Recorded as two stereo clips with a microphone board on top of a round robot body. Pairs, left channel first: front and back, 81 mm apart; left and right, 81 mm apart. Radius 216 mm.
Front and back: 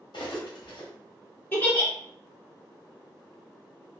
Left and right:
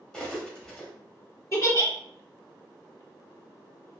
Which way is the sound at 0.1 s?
10° left.